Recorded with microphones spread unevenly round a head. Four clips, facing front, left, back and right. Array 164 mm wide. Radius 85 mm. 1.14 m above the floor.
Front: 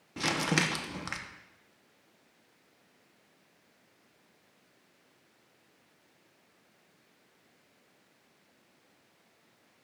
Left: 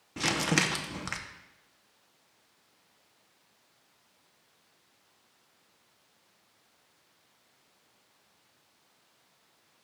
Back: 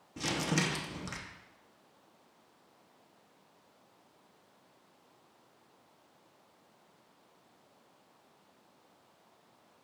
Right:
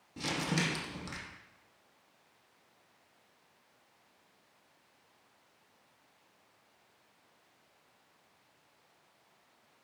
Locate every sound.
0.2 s crumpling: 40° left, 0.8 m